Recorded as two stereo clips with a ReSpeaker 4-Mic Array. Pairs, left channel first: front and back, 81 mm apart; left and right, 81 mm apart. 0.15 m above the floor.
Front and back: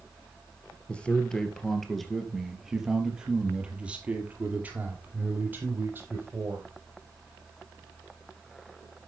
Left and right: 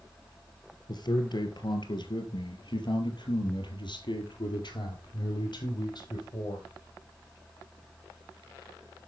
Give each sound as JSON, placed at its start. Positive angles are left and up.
{"t": 0.9, "sound": "a man speaking", "azimuth_deg": 75, "distance_m": 3.0}